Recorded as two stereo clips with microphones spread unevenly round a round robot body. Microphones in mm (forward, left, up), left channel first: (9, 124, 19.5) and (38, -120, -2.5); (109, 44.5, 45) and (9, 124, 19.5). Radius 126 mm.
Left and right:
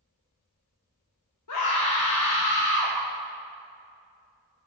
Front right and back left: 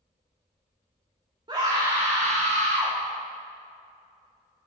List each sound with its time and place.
1.5 s a scream: 90° left, 1.4 m; by 3.0 s 170° left, 1.1 m